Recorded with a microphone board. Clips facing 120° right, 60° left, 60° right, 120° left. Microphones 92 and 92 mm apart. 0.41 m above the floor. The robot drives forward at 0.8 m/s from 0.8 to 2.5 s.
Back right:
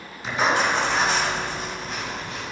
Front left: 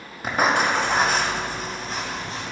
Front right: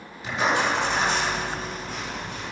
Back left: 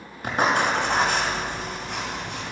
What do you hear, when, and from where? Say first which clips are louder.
0.2 s writing: front left 1 dB, back left 2 dB; 85° left, 2.5 m; by 2.5 s 115° left, 3 m